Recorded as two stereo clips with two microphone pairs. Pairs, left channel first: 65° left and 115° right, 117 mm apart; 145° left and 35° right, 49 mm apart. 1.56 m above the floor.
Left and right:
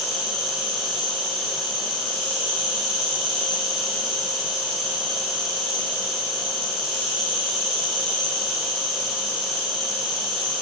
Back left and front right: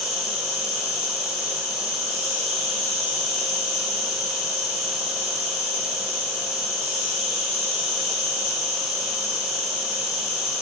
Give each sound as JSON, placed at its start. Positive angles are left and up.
{"t": 0.0, "sound": "an insect", "azimuth_deg": 55, "distance_m": 1.2}